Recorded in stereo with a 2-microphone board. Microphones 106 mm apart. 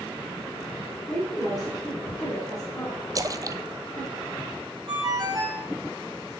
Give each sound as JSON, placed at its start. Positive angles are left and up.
{"t": 1.1, "sound": "a woman speaking", "side_deg": 35, "distance_m": 4.5}
{"t": 3.1, "sound": "a splash", "side_deg": -35, "distance_m": 0.6}
{"t": 4.9, "sound": "a ringtone", "side_deg": -40, "distance_m": 3.5}